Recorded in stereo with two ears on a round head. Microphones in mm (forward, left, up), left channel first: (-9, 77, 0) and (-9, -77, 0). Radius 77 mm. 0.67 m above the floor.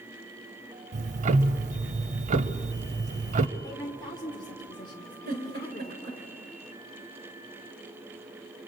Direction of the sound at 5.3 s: 60° right (ahead or behind).